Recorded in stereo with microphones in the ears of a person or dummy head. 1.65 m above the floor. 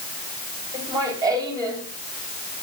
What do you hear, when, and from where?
0.7 s laughter: 20° right (ahead or behind), 7.5 m